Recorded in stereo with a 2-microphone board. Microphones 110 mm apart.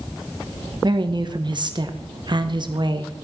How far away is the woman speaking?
About 1.2 m.